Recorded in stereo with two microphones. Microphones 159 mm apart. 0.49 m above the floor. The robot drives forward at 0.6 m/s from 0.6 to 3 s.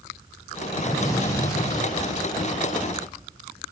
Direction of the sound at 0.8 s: 20° left (ahead or behind).